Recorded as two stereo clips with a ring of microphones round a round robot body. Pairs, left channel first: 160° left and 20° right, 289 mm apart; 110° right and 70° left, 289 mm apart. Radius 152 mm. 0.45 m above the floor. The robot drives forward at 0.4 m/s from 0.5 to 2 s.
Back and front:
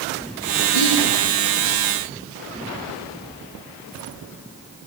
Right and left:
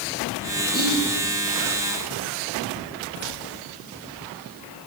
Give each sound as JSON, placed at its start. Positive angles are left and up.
{"t": 0.7, "sound": "whispering", "azimuth_deg": -175, "distance_m": 5.5}